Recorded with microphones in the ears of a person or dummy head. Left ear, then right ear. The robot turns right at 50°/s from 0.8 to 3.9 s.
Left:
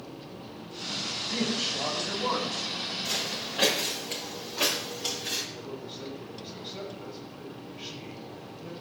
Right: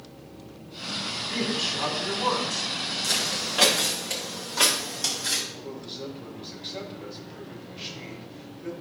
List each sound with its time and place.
1.3 s a man speaking: straight behind, 4 m; by 2.7 s 115° right, 4 m
3.0 s footsteps: 65° right (ahead or behind), 4 m; by 5.4 s 50° right (ahead or behind), 3.5 m
5.5 s a man speaking: 45° right (ahead or behind), 5 m